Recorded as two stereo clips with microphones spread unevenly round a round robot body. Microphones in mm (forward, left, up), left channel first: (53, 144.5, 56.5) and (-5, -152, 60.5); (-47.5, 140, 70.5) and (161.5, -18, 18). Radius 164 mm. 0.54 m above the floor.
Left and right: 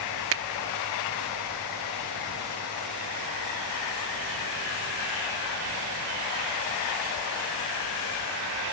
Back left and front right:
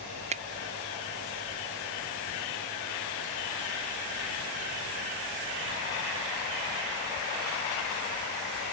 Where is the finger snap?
80° right.